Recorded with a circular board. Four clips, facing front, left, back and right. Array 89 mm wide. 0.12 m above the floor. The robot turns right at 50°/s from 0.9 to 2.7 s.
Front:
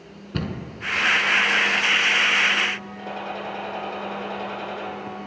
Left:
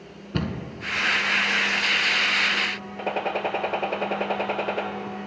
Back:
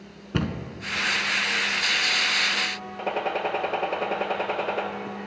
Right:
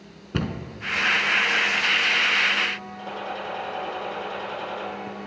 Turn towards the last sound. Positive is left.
turn(degrees=125)